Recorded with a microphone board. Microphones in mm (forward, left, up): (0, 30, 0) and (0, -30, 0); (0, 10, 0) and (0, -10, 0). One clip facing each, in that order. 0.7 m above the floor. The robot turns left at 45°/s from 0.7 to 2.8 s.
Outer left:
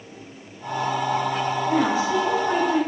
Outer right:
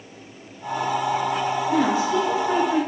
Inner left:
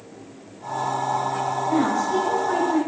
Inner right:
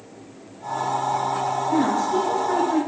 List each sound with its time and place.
1.7 s a woman speaking: 55° left, 3 m; by 2.8 s 5° left, 3 m